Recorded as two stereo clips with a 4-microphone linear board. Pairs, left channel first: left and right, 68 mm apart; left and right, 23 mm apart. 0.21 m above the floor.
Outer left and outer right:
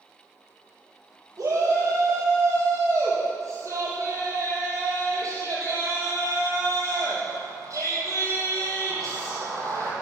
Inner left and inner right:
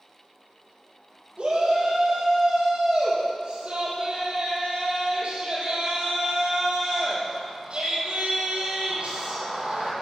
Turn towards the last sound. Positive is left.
turn(degrees=-50)  # may be behind; listen again after turning